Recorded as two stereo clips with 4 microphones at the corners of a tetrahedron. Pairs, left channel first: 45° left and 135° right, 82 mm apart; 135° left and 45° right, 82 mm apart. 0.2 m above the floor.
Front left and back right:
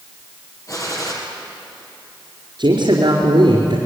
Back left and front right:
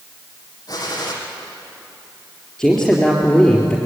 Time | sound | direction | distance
0.7 | a gunshot | 95° left | 5 m
2.6 | a man speaking | 140° right | 4 m